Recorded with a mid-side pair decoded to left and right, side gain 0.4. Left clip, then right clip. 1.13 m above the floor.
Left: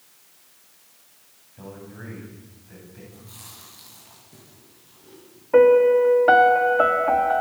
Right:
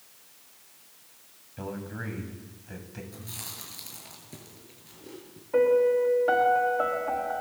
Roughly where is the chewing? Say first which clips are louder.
Right 4 dB; ahead right.